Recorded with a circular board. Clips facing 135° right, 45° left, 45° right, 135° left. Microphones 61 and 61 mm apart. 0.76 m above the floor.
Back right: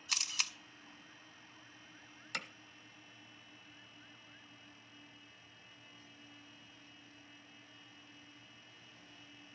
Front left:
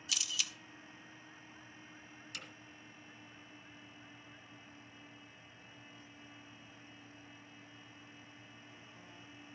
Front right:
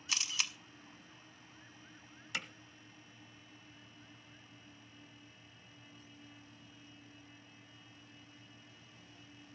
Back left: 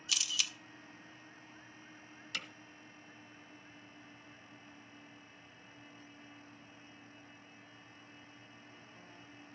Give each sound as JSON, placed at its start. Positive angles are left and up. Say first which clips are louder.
{"t": 0.1, "sound": "a camera shutter", "louder": "even, even", "azimuth_deg": -100, "distance_m": 0.8}
{"t": 2.3, "sound": "hammering", "louder": "back right 7 dB, front right 2 dB", "azimuth_deg": -115, "distance_m": 1.1}